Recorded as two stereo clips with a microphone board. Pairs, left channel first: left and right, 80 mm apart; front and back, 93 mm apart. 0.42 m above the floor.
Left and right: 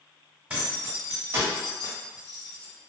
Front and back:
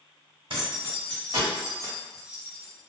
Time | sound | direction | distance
0.5 | keys jangling | 160° right | 1.5 m